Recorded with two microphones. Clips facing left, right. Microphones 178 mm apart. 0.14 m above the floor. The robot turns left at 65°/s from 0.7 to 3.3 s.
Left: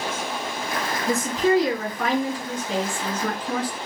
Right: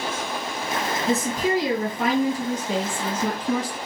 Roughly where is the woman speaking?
Ahead.